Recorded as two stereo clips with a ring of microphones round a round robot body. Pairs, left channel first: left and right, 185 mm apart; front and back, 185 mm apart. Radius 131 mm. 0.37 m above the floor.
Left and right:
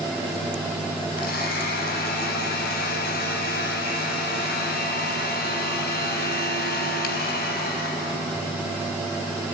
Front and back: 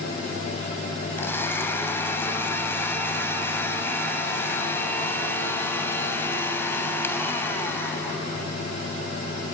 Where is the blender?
75° left, 3 m.